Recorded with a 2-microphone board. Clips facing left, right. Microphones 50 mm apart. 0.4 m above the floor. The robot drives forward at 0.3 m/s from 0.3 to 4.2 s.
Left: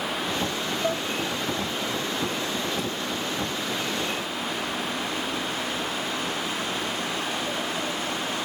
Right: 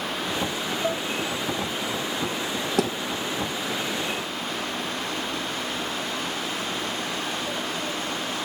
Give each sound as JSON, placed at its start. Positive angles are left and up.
{"t": 0.8, "sound": "dishes clattering", "side_deg": 0, "distance_m": 0.6}
{"t": 2.8, "sound": "a thud", "side_deg": -75, "distance_m": 1.2}